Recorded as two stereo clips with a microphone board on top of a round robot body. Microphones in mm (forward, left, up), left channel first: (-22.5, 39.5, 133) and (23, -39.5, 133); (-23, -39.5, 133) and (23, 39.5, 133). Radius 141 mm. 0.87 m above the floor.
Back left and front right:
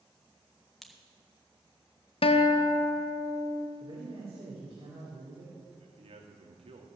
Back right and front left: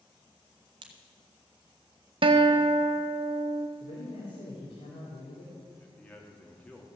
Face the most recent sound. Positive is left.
turn(degrees=-45)